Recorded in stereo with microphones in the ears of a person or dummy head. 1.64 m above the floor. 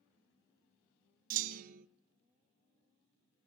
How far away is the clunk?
About 0.6 m.